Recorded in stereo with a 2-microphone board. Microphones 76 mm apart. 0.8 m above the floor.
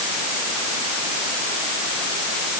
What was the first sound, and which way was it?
Only background noise.